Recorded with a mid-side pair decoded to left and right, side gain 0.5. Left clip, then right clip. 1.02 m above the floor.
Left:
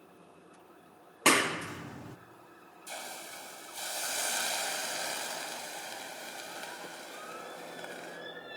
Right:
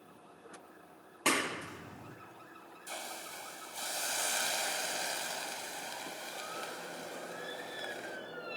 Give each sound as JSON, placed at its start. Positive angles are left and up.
{"t": 1.2, "sound": "a clap", "azimuth_deg": 40, "distance_m": 1.0}
{"t": 2.9, "sound": "a hiss", "azimuth_deg": 10, "distance_m": 5.0}